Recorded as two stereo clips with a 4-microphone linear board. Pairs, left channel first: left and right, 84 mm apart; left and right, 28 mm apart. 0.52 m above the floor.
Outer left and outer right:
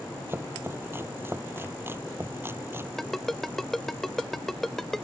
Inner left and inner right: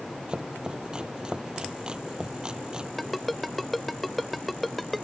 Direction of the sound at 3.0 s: 5° left (ahead or behind).